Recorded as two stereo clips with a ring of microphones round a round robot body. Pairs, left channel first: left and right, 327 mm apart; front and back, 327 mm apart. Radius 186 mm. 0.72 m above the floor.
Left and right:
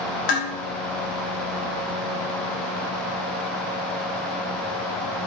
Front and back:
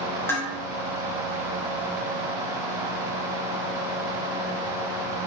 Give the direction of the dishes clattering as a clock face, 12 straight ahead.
9 o'clock.